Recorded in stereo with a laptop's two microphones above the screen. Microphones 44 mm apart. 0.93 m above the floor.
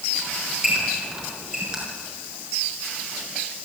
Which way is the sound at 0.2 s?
15° right (ahead or behind).